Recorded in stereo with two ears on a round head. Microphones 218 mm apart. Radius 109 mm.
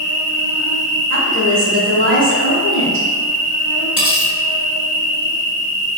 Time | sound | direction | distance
0.0 | an insect | 65° right (ahead or behind) | 1.9 m
1.1 | a woman speaking | 55° right (ahead or behind) | 1.8 m
4.0 | cutlery clinking | 5° right (ahead or behind) | 1.7 m